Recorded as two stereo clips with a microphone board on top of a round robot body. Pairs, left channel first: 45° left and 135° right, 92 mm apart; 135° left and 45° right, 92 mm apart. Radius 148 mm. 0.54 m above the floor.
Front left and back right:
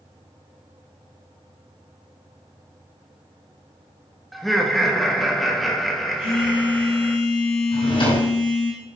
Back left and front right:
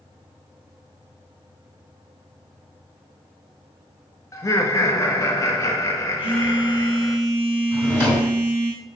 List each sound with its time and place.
4.3 s laughter: 135° left, 1.3 m
6.2 s a phone buzzing: 30° left, 1.8 m
7.7 s a drawer: 65° left, 4 m